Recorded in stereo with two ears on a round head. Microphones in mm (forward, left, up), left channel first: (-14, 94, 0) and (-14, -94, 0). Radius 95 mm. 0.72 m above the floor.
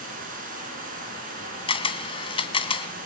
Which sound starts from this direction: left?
A camera shutter, at 1.7 s.